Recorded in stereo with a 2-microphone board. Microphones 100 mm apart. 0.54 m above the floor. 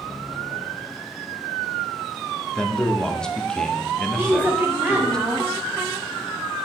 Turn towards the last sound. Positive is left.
turn(degrees=-20)  # may be behind; listen again after turning